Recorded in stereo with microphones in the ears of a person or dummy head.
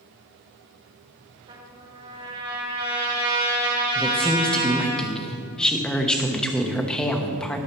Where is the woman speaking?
5° left (ahead or behind), 0.9 m.